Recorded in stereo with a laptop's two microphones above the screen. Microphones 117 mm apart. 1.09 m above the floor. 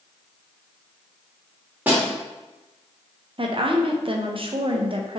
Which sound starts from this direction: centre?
A snare drum, at 1.9 s.